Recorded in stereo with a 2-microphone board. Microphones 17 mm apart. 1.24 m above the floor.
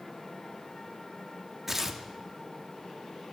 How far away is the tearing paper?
About 0.8 m.